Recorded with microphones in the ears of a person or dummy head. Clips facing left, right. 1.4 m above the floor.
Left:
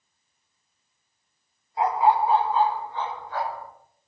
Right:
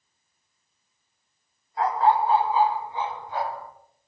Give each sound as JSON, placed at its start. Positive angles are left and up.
{"t": 1.8, "sound": "a dog barking", "side_deg": 15, "distance_m": 1.9}